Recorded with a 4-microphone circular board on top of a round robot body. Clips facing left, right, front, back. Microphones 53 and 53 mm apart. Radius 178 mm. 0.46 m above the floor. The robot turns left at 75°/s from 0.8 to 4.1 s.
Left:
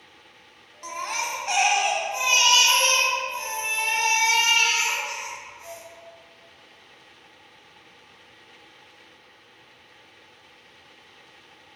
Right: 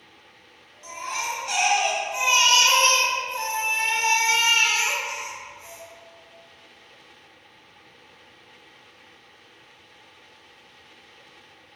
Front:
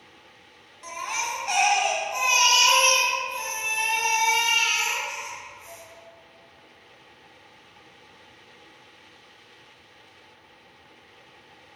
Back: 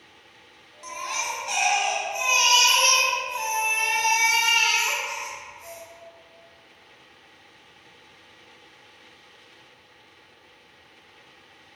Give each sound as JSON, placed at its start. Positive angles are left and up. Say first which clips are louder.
{"t": 0.8, "sound": "a baby crying", "louder": "left 1 dB, even", "azimuth_deg": 90, "distance_m": 0.8}